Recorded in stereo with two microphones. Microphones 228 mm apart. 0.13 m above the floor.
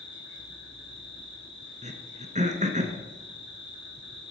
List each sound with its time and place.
0.0 s an insect: 55° left (ahead or behind), 3 m
1.8 s throat clearing: 30° right (ahead or behind), 1.0 m